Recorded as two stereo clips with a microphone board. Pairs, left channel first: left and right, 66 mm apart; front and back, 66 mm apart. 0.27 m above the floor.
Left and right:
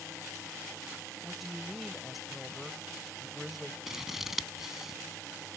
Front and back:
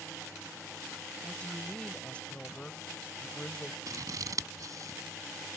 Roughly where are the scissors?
Behind.